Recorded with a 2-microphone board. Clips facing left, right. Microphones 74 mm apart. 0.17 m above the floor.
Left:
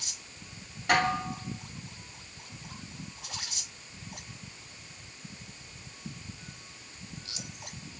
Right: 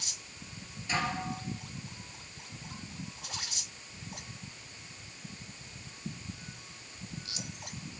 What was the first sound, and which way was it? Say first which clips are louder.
Dishes clattering: left 7 dB; 65° left (ahead or behind).